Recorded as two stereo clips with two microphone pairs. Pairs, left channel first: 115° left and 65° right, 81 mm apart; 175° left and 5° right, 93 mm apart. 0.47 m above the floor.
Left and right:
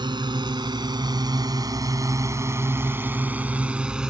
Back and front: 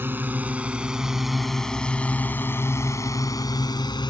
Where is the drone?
70° right; by 4.1 s 150° right.